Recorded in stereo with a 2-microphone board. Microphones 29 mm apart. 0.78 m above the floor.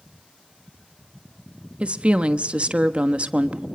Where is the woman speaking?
40° right (ahead or behind), 1.1 m.